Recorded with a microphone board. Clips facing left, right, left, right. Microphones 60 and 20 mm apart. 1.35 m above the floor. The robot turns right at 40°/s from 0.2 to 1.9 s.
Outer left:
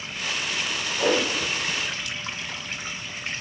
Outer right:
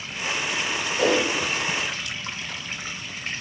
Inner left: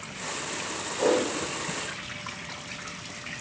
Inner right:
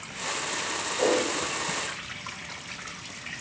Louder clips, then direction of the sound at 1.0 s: Outer right 1 dB, inner left 1 dB; 30° right (ahead or behind).